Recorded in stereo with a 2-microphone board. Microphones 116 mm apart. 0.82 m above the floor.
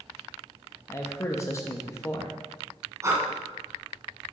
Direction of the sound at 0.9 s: 25° left (ahead or behind).